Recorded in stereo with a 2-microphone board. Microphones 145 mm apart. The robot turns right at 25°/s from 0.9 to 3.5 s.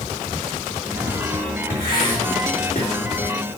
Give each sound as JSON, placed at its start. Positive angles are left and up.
{"t": 1.7, "sound": "writing", "side_deg": 75, "distance_m": 2.5}